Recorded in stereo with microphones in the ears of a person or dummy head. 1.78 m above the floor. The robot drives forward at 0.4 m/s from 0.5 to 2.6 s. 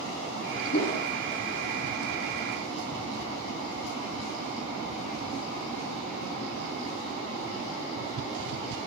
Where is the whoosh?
40° left (ahead or behind), 1.1 m.